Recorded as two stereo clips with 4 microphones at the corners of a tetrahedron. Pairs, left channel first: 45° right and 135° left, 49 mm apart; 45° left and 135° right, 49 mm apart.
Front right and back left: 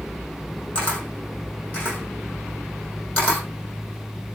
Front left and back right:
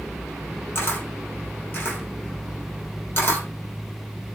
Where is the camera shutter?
20° left, 3.5 m.